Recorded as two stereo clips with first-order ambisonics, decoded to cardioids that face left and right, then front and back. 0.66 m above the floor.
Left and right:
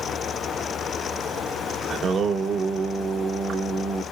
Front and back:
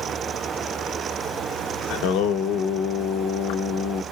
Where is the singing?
25° right, 0.7 m.